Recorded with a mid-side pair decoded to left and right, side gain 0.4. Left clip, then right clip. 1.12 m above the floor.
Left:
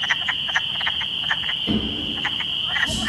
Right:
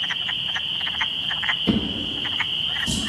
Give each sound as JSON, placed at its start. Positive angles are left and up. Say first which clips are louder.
{"t": 1.7, "sound": "a drawer", "louder": "even", "azimuth_deg": -50, "distance_m": 0.7}